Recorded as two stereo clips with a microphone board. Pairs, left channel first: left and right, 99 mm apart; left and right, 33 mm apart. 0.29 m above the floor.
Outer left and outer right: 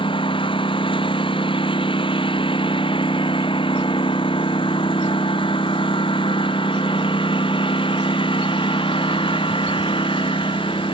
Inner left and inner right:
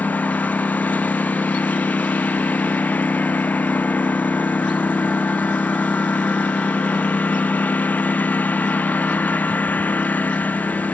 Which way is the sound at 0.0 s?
55° left (ahead or behind).